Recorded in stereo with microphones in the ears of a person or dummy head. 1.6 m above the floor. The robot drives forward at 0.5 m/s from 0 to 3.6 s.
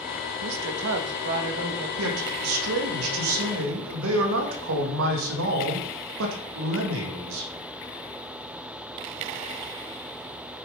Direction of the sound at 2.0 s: 80° right.